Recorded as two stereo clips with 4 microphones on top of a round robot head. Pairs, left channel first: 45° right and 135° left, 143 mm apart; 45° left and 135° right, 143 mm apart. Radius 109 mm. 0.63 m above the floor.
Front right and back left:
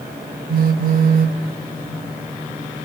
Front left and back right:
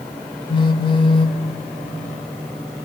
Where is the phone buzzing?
105° left, 0.7 m.